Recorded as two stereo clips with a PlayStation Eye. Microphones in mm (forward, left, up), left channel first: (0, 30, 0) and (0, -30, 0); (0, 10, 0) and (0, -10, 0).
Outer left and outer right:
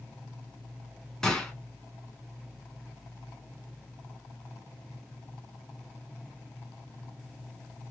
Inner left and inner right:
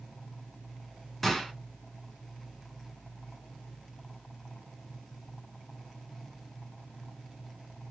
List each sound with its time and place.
1.2 s a gunshot: 10° left (ahead or behind), 1.8 m